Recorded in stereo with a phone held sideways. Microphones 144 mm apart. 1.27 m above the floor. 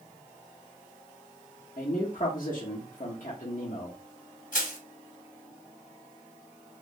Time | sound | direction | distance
1.8 | a man speaking | 65° left (ahead or behind) | 0.9 m
4.5 | crushing | 70° left (ahead or behind) | 1.2 m